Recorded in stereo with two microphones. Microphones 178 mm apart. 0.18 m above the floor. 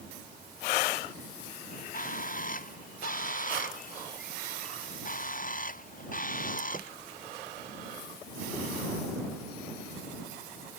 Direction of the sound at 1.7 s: 50° left (ahead or behind).